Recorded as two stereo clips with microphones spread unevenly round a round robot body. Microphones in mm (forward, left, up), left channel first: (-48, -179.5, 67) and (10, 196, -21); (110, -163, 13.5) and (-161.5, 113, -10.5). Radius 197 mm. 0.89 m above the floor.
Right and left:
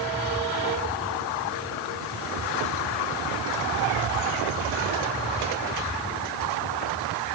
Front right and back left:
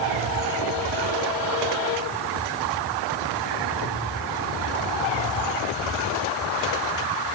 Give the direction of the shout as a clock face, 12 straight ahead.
No shout in this recording.